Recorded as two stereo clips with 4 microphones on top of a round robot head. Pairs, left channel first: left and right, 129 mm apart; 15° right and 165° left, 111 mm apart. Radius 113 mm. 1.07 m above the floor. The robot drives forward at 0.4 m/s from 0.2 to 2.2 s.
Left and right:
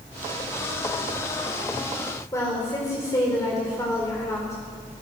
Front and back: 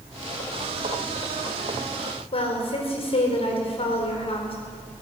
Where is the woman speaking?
20° left, 4.5 m.